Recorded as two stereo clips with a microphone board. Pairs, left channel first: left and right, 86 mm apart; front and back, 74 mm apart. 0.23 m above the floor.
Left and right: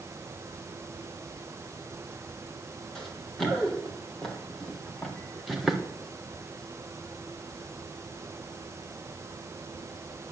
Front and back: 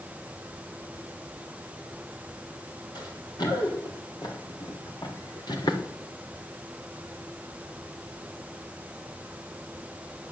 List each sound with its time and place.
3.0 s running footsteps: 5° left, 4.5 m; by 5.8 s straight ahead, 2 m